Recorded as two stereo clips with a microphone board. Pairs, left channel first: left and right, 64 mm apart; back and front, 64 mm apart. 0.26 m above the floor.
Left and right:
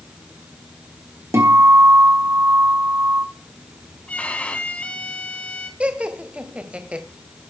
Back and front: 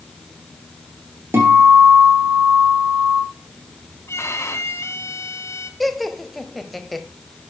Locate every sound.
1.3 s a guitar: 50° right, 5.5 m
4.1 s a violin: 150° left, 2.5 m
5.8 s laughter: 100° right, 1.2 m